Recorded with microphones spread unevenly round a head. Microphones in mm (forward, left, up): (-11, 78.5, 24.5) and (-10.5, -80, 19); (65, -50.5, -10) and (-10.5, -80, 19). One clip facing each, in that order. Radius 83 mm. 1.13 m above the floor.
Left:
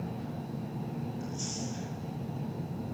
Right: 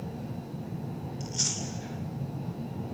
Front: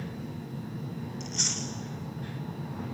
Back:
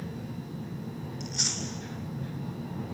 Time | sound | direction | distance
1.2 | chewing | 80° right | 3.5 m